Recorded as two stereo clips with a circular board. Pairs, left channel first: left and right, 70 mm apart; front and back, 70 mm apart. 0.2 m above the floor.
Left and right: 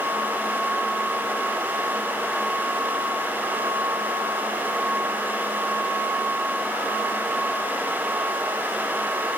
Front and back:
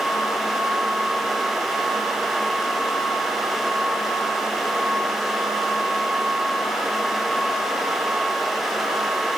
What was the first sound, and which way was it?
Only background noise.